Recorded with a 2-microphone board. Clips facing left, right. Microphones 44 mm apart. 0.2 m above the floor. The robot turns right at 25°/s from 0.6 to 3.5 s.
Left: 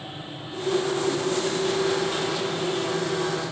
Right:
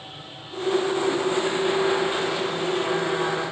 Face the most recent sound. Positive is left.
No sound to turn to.